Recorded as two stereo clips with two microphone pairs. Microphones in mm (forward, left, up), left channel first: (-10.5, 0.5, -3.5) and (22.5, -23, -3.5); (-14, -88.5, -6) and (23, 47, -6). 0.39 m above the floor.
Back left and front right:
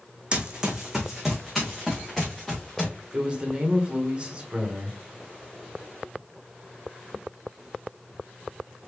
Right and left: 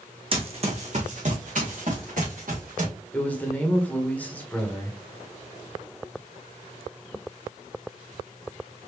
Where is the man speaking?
45° right, 1.3 m.